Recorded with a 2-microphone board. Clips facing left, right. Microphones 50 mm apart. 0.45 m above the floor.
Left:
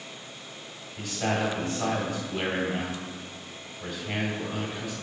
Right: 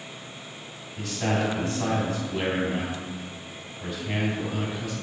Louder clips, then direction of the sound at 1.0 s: Right 1 dB; 5° right (ahead or behind).